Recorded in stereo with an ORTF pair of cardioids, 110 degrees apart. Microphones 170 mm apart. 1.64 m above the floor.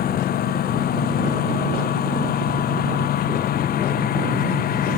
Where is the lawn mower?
70° left.